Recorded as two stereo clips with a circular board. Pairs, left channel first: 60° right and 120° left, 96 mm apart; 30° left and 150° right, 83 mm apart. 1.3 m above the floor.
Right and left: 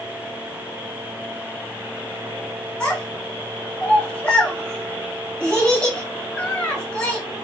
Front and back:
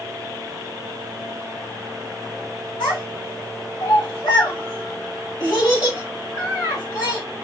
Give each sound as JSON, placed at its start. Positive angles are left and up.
{"t": 2.8, "sound": "a child speaking", "azimuth_deg": 15, "distance_m": 1.7}